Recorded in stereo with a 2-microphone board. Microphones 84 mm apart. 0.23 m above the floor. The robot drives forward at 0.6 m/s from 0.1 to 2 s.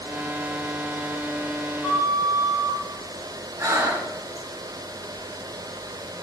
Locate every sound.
1.8 s a flute: 35° left (ahead or behind), 2 m
3.6 s breathing: 30° right (ahead or behind), 1.2 m